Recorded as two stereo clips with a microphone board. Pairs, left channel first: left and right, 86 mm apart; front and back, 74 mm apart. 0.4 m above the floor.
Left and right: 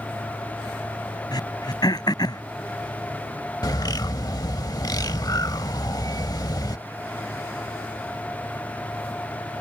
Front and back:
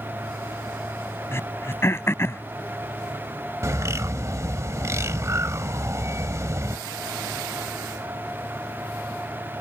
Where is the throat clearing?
55° left.